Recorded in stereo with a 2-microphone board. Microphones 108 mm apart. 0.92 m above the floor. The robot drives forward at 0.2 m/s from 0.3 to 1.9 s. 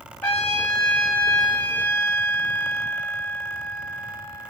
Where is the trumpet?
20° left (ahead or behind), 1.9 m; by 4.5 s 15° left (ahead or behind), 2 m.